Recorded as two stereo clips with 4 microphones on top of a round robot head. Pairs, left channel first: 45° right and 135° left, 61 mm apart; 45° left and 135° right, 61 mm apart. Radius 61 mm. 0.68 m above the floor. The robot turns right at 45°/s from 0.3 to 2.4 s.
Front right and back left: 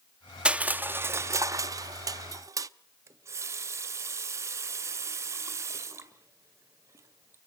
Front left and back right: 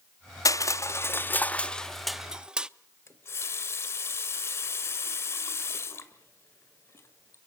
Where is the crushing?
60° left, 0.7 m; by 2.7 s 150° left, 0.7 m.